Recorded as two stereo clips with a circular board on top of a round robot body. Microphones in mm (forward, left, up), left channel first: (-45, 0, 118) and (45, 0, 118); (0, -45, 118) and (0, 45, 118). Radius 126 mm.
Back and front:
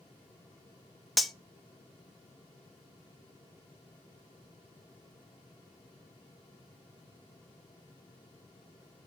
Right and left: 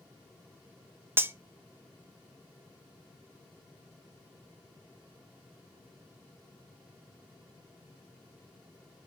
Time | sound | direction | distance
1.2 | cutlery clinking | 90° left | 0.5 m